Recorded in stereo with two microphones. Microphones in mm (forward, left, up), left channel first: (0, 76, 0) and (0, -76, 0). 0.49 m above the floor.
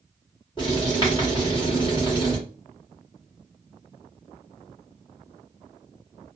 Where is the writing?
30° left (ahead or behind), 1.5 m.